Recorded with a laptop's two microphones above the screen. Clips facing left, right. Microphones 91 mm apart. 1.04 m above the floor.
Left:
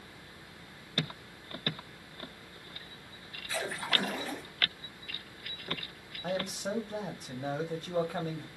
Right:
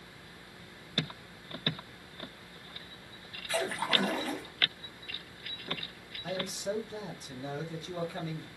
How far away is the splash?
About 1.3 m.